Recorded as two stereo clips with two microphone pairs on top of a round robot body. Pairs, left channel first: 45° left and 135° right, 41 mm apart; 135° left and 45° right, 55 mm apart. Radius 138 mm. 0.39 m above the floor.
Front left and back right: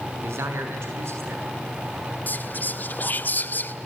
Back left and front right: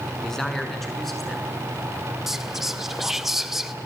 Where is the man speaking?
140° right, 6.5 m; by 1.5 s 135° right, 8 m.